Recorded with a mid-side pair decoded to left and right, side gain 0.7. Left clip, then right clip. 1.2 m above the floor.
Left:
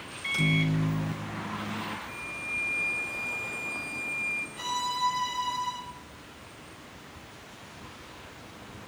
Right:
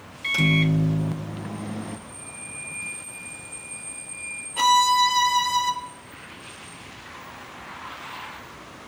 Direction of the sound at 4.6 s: 60° right.